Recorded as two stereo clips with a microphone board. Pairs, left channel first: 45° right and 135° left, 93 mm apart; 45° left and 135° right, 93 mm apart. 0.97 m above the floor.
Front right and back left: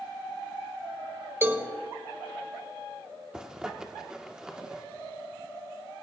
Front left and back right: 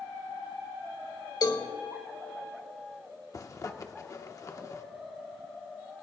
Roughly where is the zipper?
Ahead left.